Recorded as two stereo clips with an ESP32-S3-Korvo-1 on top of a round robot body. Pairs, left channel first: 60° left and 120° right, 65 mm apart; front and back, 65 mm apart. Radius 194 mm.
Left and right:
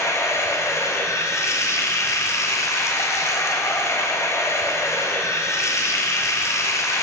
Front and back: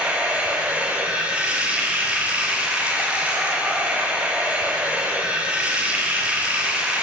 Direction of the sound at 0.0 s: 105° left.